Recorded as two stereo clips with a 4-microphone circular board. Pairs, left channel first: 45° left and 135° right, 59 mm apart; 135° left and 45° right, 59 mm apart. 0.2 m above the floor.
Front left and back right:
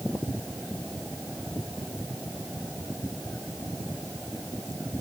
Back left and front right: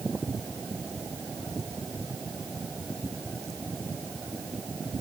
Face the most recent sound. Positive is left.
No sound to turn to.